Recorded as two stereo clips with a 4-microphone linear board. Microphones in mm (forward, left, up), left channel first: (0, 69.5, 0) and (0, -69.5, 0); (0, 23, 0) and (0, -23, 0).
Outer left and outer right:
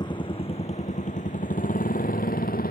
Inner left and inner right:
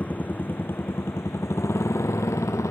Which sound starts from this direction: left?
A motorcycle, at 0.0 s.